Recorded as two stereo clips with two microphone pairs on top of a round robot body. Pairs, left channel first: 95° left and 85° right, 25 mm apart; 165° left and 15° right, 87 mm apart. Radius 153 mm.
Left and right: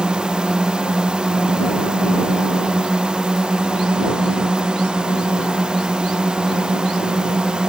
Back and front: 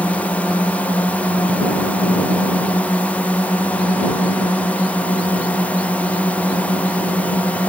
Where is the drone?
120° right.